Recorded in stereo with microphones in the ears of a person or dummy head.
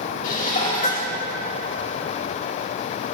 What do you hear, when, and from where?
0.2 s dishes clattering: 50° left (ahead or behind), 2.5 m